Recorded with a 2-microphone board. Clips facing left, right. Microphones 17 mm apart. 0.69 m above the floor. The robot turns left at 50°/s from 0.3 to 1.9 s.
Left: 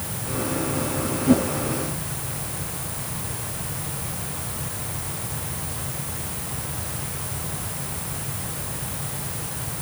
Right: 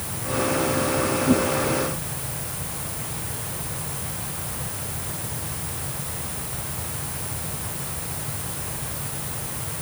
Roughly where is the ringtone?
I don't hear a ringtone.